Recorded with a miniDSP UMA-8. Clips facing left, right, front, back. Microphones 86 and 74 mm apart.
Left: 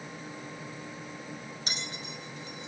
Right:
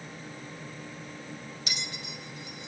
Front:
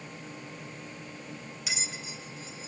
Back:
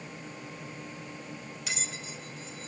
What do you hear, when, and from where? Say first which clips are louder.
1.7 s a bell: right 1 dB, front 1 dB; 85° left, 1.1 m